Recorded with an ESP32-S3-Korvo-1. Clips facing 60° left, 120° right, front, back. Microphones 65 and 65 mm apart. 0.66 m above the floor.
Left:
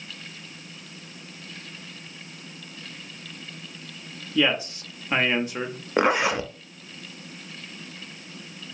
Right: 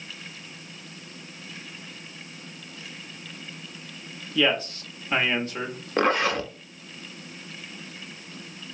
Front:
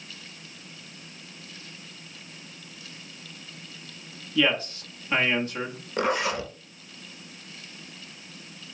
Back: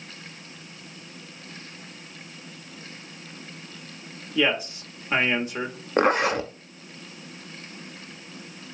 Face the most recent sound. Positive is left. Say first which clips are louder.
# left 1 dB, back 5 dB
turn(degrees=135)